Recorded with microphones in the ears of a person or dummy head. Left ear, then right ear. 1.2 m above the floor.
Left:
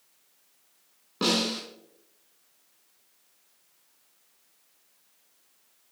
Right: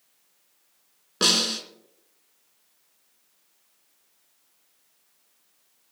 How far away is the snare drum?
About 4 m.